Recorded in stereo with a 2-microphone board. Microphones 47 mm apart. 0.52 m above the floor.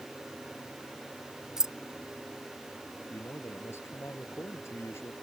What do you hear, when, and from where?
1.6 s keys jangling: 15° right (ahead or behind)
3.1 s a man speaking: 60° left (ahead or behind)